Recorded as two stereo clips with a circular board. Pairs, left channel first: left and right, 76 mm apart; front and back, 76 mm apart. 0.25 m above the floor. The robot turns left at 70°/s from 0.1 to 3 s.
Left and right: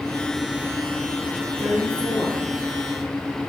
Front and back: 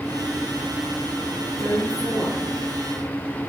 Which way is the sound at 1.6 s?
160° left.